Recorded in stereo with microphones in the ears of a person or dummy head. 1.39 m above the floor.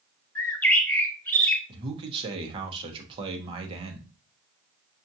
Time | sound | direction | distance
0.3 | a bird | 10° left (ahead or behind) | 0.6 m
1.7 | a man speaking | 30° right (ahead or behind) | 0.9 m